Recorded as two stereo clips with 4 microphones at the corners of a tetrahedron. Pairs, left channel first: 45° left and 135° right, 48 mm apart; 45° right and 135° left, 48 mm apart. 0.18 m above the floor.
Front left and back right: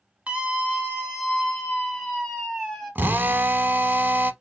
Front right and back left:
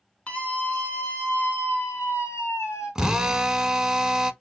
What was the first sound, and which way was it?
A scream, 90° right.